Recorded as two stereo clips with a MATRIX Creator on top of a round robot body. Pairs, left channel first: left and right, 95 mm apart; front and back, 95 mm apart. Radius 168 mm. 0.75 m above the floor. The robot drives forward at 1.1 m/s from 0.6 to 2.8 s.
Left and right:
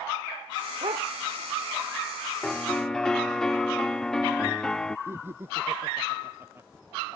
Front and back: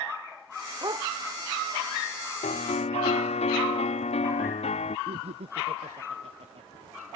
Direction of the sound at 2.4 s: 5° left.